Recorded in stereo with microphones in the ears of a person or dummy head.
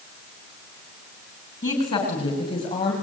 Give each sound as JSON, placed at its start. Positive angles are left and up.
{"t": 1.6, "sound": "a woman speaking", "side_deg": 40, "distance_m": 6.5}